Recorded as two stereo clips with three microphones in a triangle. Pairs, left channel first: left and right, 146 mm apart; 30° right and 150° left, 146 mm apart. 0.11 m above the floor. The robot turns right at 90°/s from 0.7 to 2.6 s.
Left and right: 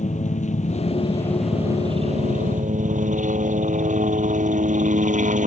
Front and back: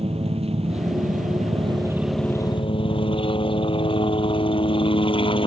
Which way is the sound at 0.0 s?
110° left.